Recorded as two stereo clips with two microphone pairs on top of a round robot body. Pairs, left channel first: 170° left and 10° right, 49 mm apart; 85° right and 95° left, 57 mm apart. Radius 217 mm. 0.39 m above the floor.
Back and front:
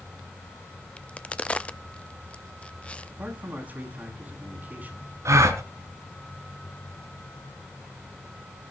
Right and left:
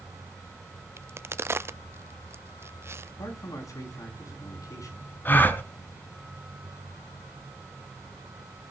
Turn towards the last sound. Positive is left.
turn(degrees=-25)